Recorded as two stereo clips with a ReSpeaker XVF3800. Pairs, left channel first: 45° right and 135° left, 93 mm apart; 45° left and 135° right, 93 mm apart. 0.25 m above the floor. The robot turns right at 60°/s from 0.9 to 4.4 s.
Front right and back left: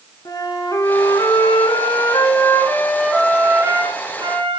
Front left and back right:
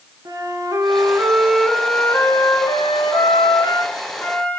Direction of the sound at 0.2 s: 90° right.